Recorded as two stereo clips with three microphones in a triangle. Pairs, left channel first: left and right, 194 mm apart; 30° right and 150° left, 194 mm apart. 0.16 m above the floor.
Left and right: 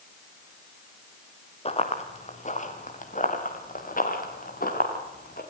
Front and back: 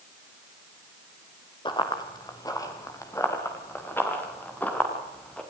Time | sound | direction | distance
1.6 | running footsteps | 35° left | 4 m